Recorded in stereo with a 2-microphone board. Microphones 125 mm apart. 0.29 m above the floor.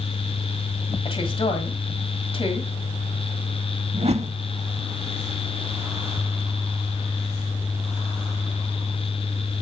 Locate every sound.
1.1 s a woman speaking: 45° left (ahead or behind), 1.8 m
3.9 s a whoosh: 55° right (ahead or behind), 0.6 m